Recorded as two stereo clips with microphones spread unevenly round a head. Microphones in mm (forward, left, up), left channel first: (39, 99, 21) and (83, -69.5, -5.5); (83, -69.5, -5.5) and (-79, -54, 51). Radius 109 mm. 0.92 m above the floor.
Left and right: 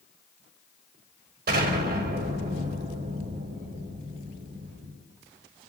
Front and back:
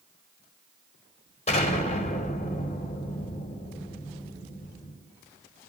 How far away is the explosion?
About 3.5 m.